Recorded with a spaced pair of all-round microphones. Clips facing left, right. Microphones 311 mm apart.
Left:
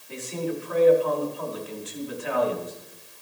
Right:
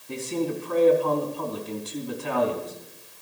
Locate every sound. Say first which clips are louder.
0.1 s a man speaking: right 3 dB; 50° right (ahead or behind), 3 m